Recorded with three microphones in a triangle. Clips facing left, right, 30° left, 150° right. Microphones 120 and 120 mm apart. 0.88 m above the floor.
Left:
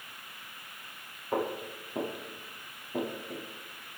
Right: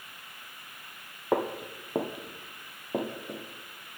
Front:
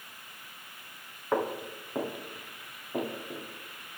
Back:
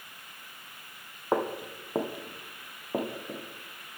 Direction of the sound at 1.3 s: 85° right.